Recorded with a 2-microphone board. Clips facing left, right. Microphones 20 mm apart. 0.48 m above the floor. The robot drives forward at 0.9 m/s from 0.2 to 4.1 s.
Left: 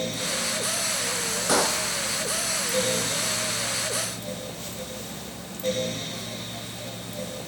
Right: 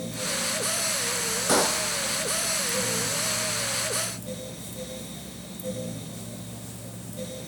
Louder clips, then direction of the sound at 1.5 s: Even; 5° left (ahead or behind).